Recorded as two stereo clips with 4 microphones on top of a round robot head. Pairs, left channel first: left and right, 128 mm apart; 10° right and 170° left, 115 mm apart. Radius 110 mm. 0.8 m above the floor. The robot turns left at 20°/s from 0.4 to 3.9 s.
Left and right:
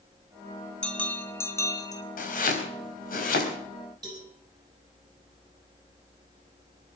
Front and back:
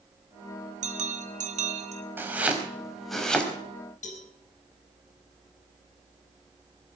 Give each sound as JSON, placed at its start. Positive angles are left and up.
{"t": 0.8, "sound": "a bell", "azimuth_deg": 175, "distance_m": 1.8}
{"t": 2.2, "sound": "chopping", "azimuth_deg": 100, "distance_m": 4.5}
{"t": 4.0, "sound": "a cowbell", "azimuth_deg": -25, "distance_m": 4.5}